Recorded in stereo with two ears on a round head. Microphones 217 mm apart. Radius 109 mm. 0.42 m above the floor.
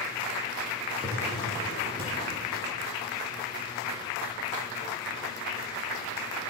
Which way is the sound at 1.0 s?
20° right (ahead or behind).